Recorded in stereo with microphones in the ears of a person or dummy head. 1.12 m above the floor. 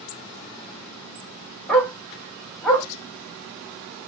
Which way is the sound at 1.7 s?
Centre (ahead or behind).